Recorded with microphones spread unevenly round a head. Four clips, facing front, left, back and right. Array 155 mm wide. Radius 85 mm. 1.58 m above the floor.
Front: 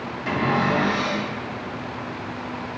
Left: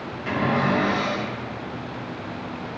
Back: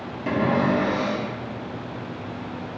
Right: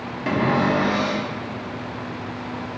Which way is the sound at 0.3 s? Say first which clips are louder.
Right 2 dB, back 1 dB; 120° right.